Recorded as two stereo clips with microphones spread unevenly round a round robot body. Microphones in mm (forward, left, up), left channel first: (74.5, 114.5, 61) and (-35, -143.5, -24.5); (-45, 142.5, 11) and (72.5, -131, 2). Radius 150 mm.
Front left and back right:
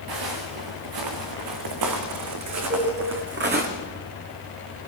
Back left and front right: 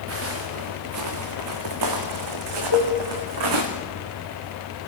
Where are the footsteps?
115° right, 5.5 m; by 3.7 s 50° right, 4 m.